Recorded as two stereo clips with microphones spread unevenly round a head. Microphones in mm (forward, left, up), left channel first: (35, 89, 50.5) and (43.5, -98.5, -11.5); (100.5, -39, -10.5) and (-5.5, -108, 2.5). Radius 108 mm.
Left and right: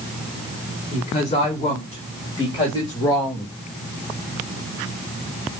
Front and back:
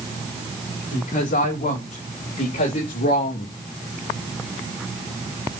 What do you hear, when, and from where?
0.9 s a woman speaking: 40° left, 6 m; by 3.6 s 10° left, 3 m